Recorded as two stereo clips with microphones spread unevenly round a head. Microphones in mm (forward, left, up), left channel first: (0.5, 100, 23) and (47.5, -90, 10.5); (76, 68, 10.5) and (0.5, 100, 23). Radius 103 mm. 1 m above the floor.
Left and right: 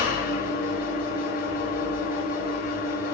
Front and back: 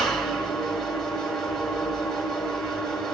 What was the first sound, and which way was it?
An engine running, 60° left.